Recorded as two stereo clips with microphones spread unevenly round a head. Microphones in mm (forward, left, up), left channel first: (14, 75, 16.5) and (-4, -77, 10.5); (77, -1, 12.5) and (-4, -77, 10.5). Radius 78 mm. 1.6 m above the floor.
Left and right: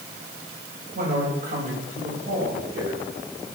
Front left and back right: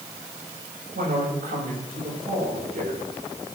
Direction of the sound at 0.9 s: 145° right.